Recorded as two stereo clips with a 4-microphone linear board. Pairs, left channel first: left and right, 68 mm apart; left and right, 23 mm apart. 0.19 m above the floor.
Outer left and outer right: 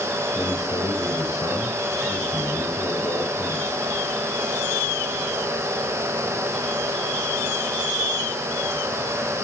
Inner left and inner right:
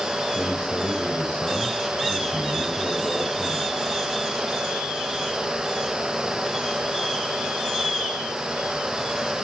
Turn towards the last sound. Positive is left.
turn(degrees=50)  # may be behind; listen again after turning